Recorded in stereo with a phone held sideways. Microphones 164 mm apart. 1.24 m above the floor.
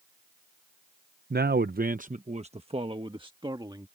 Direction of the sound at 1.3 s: 75° right (ahead or behind).